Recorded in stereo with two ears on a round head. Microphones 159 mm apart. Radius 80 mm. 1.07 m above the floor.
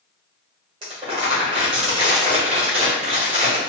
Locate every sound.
0.8 s crumpling: 35° right (ahead or behind), 1.7 m